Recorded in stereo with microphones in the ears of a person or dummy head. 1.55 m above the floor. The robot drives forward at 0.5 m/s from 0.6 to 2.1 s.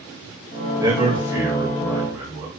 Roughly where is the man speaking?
Centre.